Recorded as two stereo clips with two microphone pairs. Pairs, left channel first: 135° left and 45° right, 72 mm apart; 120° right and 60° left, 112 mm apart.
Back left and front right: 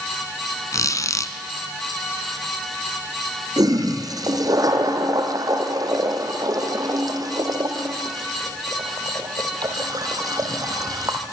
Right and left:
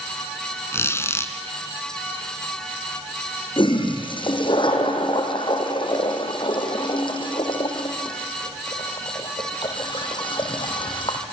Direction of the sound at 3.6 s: 80° right.